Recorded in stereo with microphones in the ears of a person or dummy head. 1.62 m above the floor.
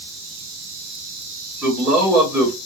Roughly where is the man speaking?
Centre.